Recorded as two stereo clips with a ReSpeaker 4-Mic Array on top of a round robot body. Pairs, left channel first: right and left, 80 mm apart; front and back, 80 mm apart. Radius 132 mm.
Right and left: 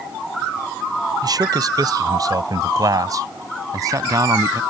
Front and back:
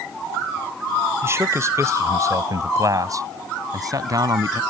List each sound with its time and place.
1.2 s a man speaking: 125° left; by 4.6 s 135° left